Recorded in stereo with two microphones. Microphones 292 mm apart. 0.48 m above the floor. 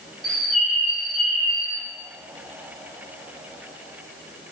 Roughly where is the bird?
Centre.